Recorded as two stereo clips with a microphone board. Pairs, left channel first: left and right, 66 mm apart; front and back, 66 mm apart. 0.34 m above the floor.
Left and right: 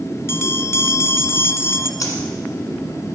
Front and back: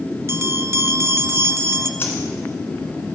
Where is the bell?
135° left, 0.6 m.